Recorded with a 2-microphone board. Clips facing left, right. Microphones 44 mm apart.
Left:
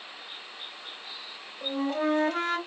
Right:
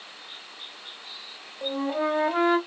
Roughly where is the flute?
Centre.